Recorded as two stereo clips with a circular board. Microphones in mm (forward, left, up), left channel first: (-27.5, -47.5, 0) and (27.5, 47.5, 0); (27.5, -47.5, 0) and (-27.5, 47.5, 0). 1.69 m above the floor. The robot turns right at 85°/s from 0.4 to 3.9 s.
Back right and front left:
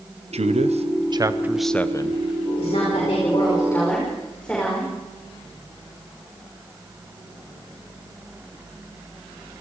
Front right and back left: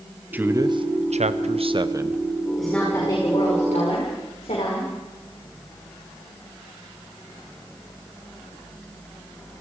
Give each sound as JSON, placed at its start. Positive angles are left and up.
{"t": 0.3, "sound": "a man speaking", "azimuth_deg": 45, "distance_m": 1.1}
{"t": 2.6, "sound": "a woman speaking", "azimuth_deg": -155, "distance_m": 5.5}